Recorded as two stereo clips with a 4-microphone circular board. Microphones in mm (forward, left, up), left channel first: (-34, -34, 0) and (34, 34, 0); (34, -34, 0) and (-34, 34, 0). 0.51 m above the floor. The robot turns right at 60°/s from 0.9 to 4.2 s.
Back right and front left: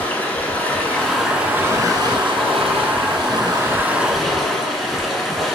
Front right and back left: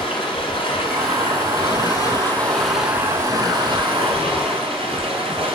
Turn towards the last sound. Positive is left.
turn(degrees=135)